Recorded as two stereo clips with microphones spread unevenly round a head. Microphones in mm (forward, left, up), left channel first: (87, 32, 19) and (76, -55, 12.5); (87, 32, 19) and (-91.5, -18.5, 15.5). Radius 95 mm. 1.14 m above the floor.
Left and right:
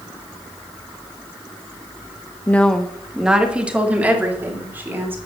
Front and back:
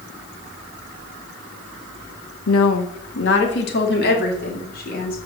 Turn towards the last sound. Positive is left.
turn(degrees=-30)